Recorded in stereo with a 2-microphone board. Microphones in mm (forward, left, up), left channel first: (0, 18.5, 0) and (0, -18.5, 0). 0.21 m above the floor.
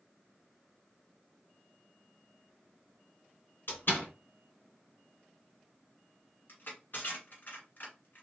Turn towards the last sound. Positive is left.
turn(degrees=60)  # may be behind; listen again after turning